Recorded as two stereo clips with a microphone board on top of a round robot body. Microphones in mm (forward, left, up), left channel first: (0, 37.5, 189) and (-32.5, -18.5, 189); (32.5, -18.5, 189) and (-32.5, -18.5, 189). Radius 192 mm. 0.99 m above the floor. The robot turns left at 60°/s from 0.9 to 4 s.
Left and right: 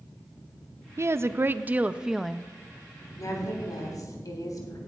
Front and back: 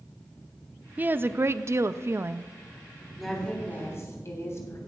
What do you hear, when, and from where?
1.0 s a woman speaking: 130° right, 0.6 m; by 2.5 s 140° left, 0.6 m
3.2 s a woman speaking: 90° left, 3.5 m; by 4.8 s 40° left, 3.5 m